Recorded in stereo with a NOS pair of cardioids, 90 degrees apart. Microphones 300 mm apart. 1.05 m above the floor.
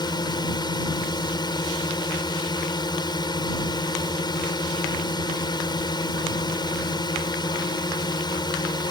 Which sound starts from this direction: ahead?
A drone, at 0.0 s.